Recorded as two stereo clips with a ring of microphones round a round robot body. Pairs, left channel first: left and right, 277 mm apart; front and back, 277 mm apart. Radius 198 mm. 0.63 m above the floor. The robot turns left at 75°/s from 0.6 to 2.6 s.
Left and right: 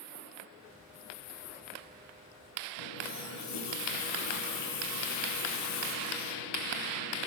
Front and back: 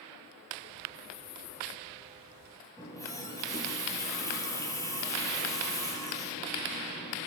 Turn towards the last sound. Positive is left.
turn(degrees=80)